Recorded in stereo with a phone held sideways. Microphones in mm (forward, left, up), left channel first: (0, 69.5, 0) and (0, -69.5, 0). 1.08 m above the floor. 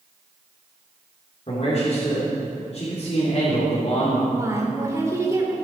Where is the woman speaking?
20° right (ahead or behind), 3 m.